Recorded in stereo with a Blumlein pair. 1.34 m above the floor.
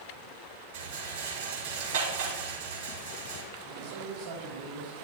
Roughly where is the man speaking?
Ahead right.